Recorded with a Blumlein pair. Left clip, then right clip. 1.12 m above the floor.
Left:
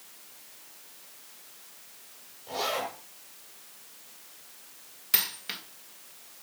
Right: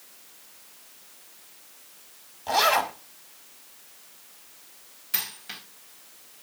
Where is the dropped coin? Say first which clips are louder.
Left 2 dB; 20° left, 1.8 m.